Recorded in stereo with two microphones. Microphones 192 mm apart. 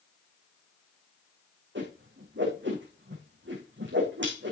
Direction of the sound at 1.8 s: 75° right (ahead or behind).